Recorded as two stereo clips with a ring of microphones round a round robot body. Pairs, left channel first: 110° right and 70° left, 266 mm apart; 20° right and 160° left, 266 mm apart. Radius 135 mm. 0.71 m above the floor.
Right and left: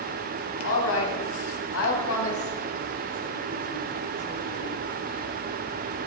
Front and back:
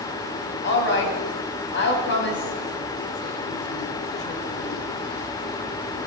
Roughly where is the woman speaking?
Right.